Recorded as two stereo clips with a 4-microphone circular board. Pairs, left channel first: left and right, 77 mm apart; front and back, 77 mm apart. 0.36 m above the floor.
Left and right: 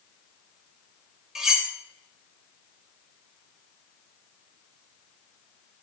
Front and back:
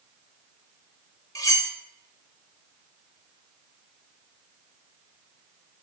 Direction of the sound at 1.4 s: 10° right.